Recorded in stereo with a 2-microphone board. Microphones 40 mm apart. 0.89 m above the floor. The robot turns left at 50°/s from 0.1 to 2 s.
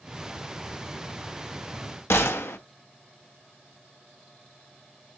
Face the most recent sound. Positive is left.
turn(degrees=80)